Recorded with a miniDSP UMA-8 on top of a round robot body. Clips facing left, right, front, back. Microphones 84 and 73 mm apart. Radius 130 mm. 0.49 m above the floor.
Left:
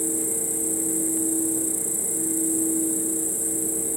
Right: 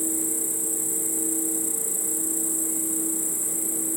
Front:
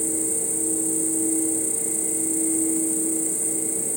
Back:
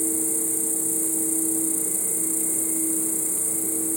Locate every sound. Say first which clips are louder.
0.0 s an insect: left 2 dB, even; 130° right